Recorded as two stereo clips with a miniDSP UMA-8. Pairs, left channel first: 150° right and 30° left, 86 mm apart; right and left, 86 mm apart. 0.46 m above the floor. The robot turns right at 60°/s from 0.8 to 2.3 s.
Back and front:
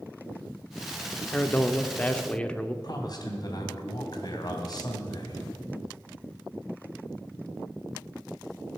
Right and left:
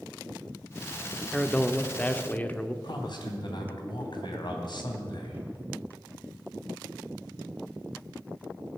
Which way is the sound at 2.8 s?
115° right.